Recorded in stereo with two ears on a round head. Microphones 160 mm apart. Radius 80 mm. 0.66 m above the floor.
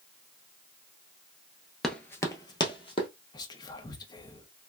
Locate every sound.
1.8 s running footsteps: centre (ahead or behind), 0.6 m; by 3.1 s 30° left (ahead or behind), 1.2 m
3.3 s whispering: 25° left (ahead or behind), 0.7 m